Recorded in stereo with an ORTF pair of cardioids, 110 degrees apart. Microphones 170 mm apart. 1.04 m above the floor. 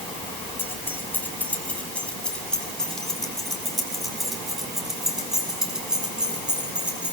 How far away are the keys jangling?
About 4.5 m.